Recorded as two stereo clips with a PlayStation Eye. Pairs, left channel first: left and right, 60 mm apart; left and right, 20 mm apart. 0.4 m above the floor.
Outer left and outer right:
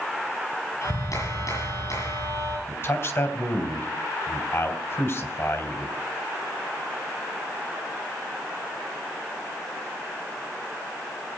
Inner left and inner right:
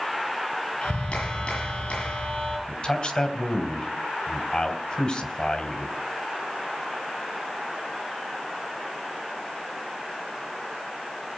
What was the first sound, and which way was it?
A clap, 75° left (ahead or behind).